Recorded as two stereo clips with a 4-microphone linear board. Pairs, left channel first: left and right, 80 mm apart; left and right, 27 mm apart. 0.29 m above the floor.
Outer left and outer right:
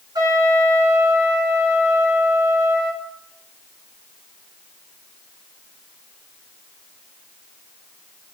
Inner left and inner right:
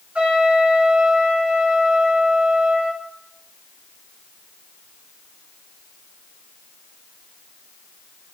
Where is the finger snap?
I don't hear a finger snap.